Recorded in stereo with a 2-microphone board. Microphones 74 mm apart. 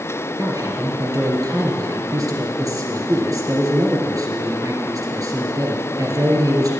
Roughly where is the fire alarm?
No fire alarm in this recording.